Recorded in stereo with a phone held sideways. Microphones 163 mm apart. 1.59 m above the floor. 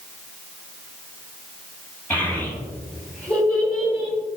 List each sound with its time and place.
2.1 s a child speaking: 10° left (ahead or behind), 3.5 m; by 4.2 s 5° left (ahead or behind), 5 m